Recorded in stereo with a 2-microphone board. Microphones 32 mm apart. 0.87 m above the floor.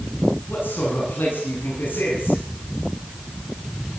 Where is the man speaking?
85° left, 9 m.